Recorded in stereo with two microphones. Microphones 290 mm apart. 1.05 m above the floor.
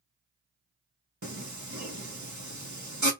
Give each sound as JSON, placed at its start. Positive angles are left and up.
{"t": 1.2, "sound": "singing", "side_deg": -70, "distance_m": 1.8}